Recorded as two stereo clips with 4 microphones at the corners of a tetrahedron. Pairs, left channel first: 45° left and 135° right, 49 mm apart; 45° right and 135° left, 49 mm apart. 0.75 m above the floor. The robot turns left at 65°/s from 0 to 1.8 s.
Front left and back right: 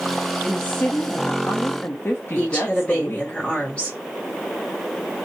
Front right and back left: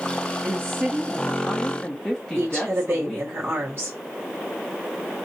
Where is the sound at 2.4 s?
105° left, 1.3 m.